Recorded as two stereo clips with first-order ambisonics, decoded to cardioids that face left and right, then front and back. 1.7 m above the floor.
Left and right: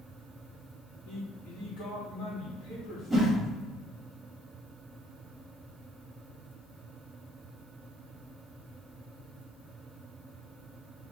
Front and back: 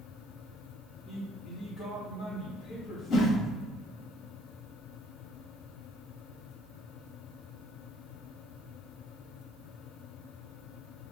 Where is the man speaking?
80° left, 2.0 m.